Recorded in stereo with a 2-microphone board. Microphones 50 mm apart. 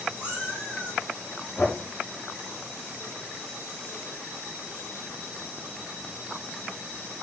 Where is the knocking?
15° left (ahead or behind), 5 m.